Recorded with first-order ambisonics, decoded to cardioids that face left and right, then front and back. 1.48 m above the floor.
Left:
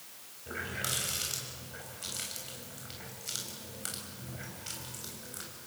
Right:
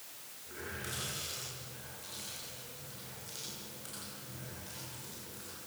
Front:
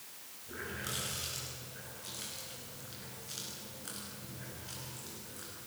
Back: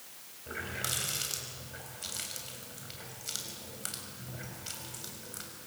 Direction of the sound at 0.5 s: 140° left.